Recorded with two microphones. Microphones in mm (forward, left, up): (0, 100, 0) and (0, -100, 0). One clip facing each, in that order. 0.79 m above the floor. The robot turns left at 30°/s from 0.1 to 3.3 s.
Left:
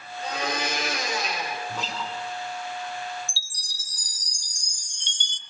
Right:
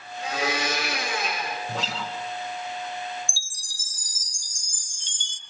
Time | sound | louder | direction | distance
0.2 | a blender | right 2 dB | 95° right | 8.5 m
1.7 | a guitar | right 1 dB | 90° right | 2.5 m
3.3 | a chime | even | 70° left (ahead or behind) | 0.8 m